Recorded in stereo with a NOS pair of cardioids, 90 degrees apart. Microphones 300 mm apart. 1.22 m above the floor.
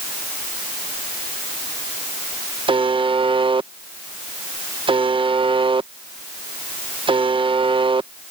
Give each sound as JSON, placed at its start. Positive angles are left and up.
{"t": 2.7, "sound": "a buzzer", "azimuth_deg": -15}